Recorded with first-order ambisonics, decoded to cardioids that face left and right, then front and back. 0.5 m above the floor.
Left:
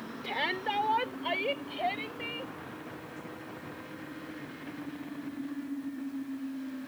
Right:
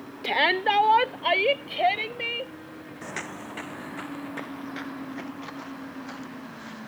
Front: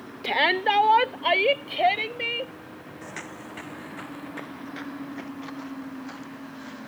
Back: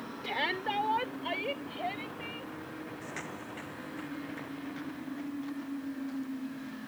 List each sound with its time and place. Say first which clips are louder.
0.2 s a shout: right 10 dB, front 11 dB; 45° right; by 2.5 s 35° right
3.0 s footsteps: right 8 dB, front 6 dB; 80° right; by 6.9 s 55° right